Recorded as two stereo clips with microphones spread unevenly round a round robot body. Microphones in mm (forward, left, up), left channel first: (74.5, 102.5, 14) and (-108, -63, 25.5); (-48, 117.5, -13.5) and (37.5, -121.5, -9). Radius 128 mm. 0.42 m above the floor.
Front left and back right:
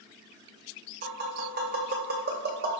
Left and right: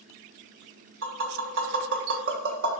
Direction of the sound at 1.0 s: 95° right.